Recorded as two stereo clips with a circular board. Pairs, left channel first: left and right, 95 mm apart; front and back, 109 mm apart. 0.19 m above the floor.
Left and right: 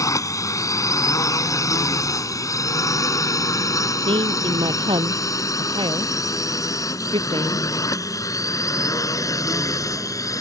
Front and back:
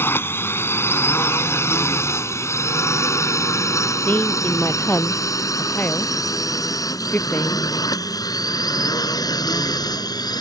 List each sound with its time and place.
0.0 s a drone: 60° left; by 10.4 s 45° left
4.0 s a woman speaking: 75° right